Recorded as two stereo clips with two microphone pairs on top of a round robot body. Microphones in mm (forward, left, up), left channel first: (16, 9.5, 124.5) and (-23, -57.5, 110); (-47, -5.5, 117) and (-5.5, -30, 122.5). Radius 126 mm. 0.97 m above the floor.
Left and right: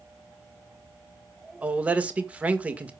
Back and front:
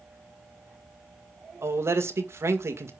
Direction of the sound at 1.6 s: 55° right.